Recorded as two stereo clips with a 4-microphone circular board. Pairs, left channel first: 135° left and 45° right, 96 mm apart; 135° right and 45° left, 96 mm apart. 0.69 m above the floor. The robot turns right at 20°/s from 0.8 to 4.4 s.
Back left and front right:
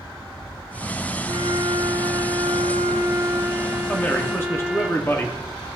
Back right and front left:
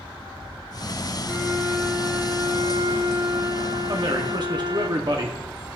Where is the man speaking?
65° left, 0.9 m; by 5.4 s 75° left, 0.9 m.